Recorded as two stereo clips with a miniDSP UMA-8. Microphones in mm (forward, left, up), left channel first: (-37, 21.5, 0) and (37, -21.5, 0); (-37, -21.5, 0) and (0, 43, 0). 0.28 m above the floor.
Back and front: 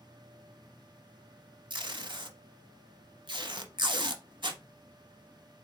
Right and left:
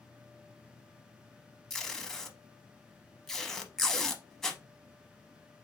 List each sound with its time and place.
1.7 s tape being pulled: 35° right, 0.7 m